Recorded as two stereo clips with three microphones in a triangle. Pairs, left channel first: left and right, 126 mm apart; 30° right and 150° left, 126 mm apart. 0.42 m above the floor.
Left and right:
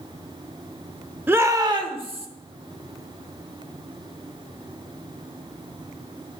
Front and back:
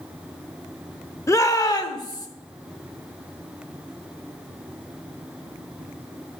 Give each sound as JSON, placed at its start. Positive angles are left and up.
{"t": 1.3, "sound": "a shout", "azimuth_deg": -40, "distance_m": 0.8}